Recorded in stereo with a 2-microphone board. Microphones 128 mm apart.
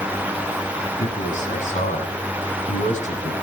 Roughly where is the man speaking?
Left.